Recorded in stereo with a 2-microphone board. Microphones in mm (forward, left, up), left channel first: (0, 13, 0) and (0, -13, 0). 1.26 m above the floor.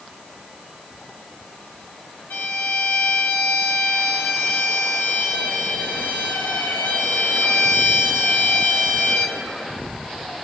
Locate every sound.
2.3 s a violin: 75° left (ahead or behind), 1.9 m